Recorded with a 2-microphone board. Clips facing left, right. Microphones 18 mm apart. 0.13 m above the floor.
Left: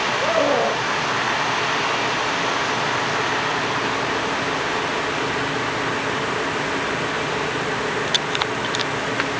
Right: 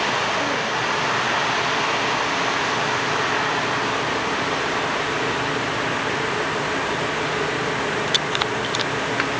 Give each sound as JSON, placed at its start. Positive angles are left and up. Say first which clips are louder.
{"t": 0.2, "sound": "a scream", "louder": "left 4 dB", "side_deg": 55}